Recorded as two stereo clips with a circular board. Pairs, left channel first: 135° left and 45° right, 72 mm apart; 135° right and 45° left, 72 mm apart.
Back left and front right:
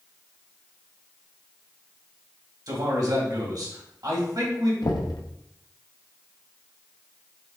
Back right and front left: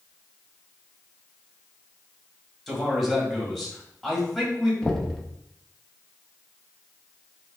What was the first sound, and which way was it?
A man speaking, 50° right.